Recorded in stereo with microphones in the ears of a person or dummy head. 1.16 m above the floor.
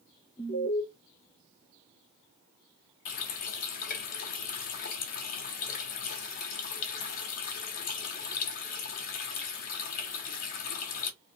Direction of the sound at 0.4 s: 50° left (ahead or behind).